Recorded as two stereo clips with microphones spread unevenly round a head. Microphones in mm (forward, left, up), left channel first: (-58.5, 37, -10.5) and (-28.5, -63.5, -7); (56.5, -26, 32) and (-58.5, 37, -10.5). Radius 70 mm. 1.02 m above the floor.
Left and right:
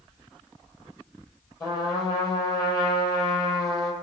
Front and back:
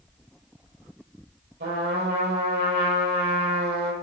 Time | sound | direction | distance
1.6 | a trumpet | 160° left | 8.5 m